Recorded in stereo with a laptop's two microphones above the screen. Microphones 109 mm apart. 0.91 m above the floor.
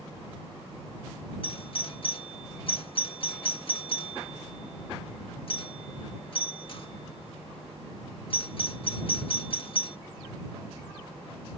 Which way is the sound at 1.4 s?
50° left (ahead or behind).